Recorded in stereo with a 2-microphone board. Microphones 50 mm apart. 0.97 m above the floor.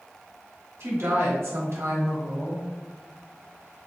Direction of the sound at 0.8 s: 60° right (ahead or behind).